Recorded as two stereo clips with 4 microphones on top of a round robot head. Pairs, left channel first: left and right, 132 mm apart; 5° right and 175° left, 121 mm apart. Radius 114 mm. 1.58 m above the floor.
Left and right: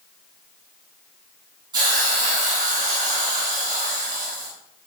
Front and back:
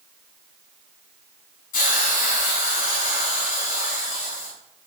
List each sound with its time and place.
1.7 s a hiss: 25° right, 8.5 m